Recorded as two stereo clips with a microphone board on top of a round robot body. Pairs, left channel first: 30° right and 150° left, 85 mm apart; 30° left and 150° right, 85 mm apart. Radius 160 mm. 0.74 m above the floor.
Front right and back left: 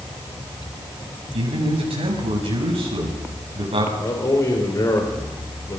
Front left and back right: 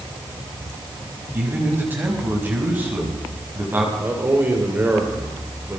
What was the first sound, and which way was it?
A man speaking, 140° left.